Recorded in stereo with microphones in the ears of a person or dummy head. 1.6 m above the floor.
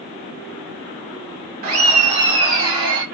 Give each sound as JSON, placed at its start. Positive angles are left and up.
{"t": 1.6, "sound": "laughter", "side_deg": -40, "distance_m": 1.7}